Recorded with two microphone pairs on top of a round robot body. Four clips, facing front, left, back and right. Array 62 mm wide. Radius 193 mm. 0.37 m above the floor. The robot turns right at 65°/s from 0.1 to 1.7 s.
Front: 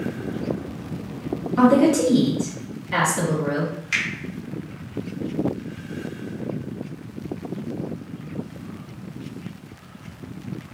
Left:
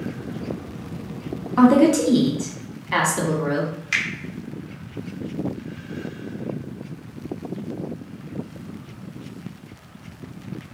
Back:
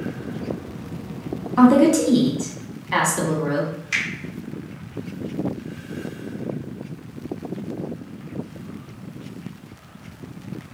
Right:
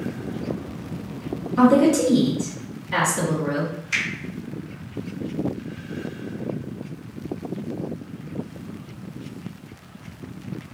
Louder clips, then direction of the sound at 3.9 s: Left 2 dB, even; 65° left.